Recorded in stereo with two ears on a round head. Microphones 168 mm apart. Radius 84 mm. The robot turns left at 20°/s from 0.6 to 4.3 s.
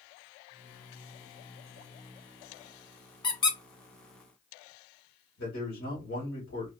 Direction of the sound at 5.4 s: 85° left.